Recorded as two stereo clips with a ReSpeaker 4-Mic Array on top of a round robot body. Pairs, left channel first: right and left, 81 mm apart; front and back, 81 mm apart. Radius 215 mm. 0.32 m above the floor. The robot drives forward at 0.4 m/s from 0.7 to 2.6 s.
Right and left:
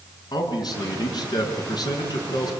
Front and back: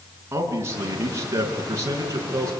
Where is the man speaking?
125° right, 6 m; by 2.5 s 130° right, 6.5 m.